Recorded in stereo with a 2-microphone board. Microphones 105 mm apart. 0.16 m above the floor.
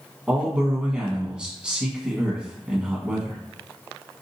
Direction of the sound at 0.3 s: 10° right (ahead or behind).